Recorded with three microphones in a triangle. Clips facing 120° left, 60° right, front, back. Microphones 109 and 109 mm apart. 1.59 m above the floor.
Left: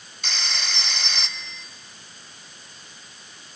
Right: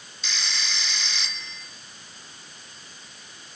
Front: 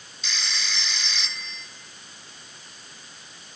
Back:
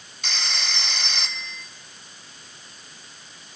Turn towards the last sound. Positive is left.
turn(degrees=150)